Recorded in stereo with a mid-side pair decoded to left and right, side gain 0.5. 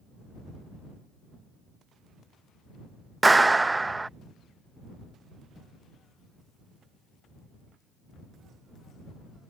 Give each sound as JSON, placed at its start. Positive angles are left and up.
{"t": 3.2, "sound": "a clap", "azimuth_deg": -15}